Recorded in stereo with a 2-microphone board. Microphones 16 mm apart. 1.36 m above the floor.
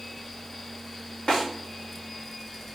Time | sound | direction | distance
1.3 | a snare drum | 75° left (ahead or behind) | 1.5 m